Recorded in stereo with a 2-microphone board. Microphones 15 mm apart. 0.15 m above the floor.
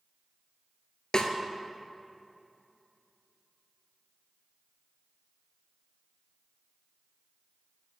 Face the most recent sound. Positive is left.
turn(degrees=50)  # may be behind; listen again after turning